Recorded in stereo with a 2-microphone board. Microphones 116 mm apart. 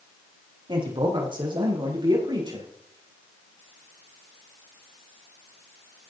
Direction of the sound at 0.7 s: 45° right (ahead or behind).